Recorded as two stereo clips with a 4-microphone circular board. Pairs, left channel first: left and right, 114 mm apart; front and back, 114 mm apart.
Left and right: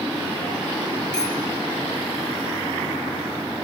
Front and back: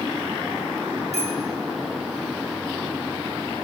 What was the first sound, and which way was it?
A bicycle bell, 5° left.